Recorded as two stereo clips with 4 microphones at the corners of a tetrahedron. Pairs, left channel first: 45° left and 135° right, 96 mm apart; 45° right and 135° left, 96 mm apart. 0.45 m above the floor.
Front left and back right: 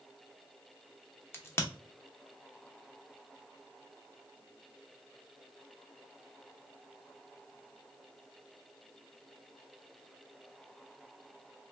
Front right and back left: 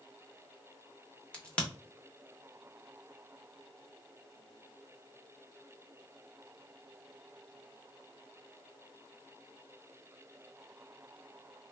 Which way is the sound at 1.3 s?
20° left.